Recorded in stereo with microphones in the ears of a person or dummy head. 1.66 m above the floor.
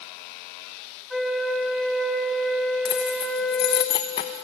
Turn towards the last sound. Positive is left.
turn(degrees=25)  # may be behind; listen again after turning